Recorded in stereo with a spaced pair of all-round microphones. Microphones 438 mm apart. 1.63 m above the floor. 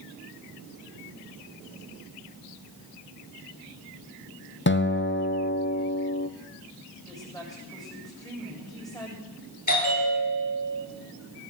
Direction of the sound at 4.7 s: 25° left (ahead or behind).